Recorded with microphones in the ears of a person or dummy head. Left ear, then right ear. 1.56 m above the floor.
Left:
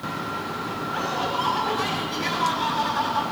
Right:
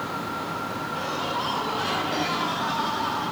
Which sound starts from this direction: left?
Laughter, at 0.9 s.